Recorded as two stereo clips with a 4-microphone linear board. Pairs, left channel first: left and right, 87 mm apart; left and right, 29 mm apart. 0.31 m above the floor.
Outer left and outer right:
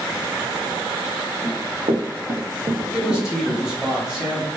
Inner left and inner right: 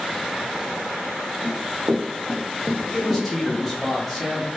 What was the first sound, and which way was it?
Running footsteps, 60° right (ahead or behind).